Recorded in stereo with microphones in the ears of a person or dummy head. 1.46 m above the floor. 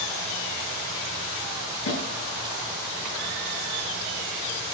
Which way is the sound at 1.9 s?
85° left.